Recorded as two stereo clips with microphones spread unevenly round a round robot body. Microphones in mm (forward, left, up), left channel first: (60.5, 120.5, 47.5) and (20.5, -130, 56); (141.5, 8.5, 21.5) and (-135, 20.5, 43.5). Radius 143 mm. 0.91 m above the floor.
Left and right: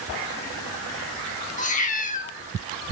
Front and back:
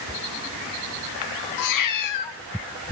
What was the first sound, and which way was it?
A cat meowing, 20° left.